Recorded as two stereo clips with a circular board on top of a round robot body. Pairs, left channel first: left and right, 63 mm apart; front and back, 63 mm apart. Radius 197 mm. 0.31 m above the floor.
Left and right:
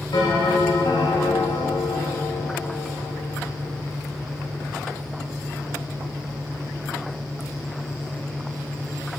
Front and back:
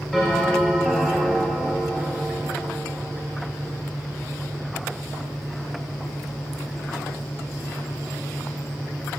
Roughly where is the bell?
Left.